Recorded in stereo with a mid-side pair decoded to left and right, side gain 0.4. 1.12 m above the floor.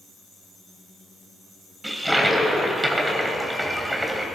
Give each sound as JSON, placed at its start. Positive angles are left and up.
{"t": 1.8, "sound": "a toilet flushing", "azimuth_deg": -10, "distance_m": 3.0}